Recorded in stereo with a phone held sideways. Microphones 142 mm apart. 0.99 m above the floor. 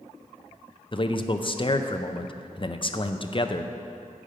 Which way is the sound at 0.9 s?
35° left (ahead or behind).